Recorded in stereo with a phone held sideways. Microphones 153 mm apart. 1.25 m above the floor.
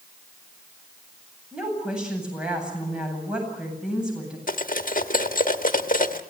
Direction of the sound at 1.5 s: 5° right (ahead or behind).